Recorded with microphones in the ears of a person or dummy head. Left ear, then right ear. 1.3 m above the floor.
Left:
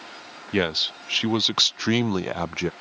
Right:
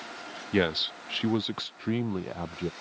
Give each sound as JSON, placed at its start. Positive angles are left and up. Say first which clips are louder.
{"t": 0.5, "sound": "a man speaking", "louder": "left 3 dB", "side_deg": 10}